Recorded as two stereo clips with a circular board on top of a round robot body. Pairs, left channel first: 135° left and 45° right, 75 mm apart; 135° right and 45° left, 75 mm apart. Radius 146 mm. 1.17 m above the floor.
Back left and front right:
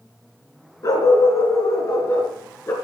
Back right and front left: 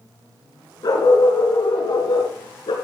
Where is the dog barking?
175° right, 4 m; by 2.7 s 165° right, 4.5 m.